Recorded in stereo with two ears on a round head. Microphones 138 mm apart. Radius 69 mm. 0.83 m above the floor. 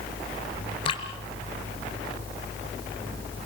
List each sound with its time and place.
0.8 s dripping: 35° left (ahead or behind), 2 m